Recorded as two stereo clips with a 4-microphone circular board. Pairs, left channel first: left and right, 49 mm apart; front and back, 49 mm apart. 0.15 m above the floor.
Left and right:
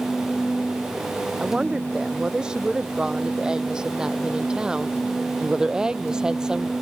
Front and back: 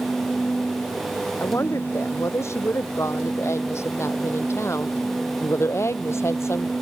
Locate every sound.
1.4 s a woman speaking: 15° right